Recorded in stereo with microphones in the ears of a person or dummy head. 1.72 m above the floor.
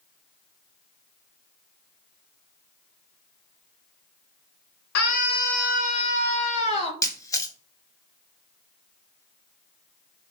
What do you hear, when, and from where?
5.0 s a scream: 55° left (ahead or behind), 2 m; by 6.9 s 30° left (ahead or behind), 2.5 m
7.0 s a camera shutter: 15° left (ahead or behind), 1.2 m